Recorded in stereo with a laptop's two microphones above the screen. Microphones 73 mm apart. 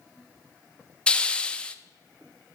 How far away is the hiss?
About 0.5 m.